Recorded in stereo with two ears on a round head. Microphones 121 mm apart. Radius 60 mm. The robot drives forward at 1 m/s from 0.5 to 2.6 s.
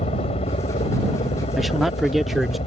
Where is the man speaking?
Centre (ahead or behind).